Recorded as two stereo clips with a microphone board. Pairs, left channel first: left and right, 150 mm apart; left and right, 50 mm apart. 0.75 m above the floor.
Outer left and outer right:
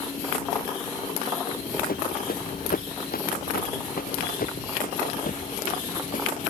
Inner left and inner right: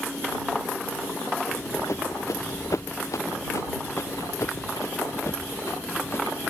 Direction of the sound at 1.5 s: 70° left (ahead or behind).